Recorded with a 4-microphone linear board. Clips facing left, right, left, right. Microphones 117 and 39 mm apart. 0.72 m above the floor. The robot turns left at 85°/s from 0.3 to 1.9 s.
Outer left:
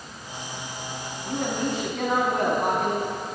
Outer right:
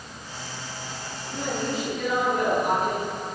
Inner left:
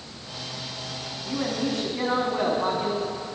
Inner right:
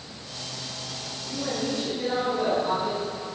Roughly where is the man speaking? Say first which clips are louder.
Outer left 2 dB, inner left 2 dB; behind left.